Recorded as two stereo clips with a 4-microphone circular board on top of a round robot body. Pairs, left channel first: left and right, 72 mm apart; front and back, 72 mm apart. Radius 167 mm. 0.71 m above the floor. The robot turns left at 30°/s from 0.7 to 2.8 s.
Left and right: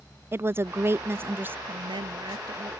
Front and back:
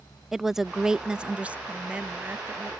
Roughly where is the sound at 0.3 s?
Right.